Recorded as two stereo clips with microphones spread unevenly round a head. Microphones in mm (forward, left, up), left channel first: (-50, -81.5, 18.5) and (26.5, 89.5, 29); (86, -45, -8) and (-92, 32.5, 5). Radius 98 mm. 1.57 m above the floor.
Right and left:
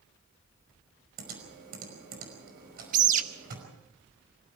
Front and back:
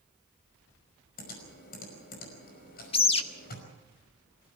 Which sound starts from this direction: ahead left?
A bird, at 2.9 s.